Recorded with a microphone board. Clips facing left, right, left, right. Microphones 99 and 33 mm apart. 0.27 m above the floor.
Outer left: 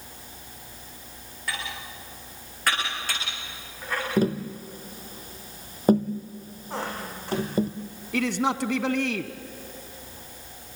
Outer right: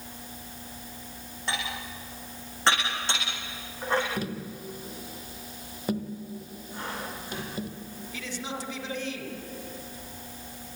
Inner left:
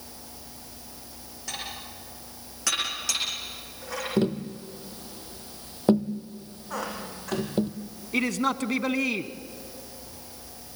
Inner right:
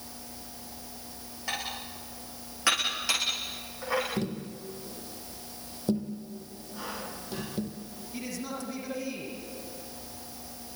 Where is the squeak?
75° left (ahead or behind), 7 m.